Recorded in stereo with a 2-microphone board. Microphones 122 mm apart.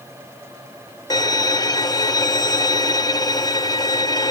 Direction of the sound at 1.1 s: 30° left (ahead or behind).